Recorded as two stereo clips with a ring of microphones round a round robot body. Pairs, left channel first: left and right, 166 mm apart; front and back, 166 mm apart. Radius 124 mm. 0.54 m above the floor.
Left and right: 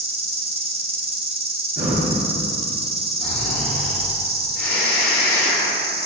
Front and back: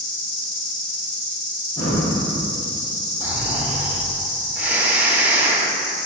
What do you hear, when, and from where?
0.0 s an insect: 40° right, 1.2 m
1.8 s breathing: 70° right, 2.5 m
3.2 s snoring: 100° left, 2 m